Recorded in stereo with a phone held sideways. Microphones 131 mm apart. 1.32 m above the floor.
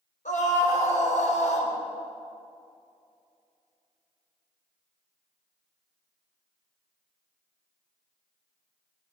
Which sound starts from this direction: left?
A scream, at 0.2 s.